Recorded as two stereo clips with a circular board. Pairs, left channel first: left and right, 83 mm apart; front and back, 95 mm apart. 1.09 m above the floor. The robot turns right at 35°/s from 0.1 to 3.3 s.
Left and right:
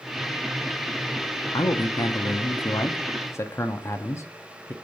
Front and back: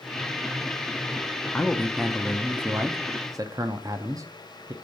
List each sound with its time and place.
1.5 s a man speaking: 75° left, 0.5 m; by 4.7 s 135° left, 0.5 m